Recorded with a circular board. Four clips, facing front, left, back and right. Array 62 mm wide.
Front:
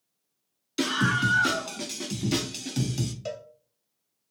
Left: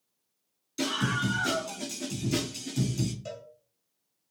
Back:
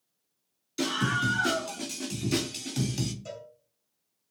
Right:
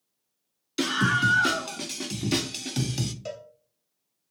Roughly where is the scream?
Ahead right.